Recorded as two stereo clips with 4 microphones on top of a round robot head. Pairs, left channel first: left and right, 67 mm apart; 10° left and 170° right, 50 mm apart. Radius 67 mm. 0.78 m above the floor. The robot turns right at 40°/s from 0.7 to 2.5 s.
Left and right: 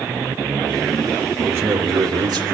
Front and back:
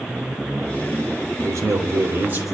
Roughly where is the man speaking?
Behind right.